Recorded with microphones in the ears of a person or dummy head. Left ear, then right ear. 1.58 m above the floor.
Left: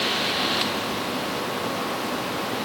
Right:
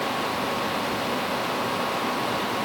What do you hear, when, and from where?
Only background noise.